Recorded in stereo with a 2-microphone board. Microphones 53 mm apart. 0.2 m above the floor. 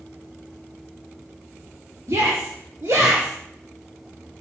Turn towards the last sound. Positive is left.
turn(degrees=-70)  # may be behind; listen again after turning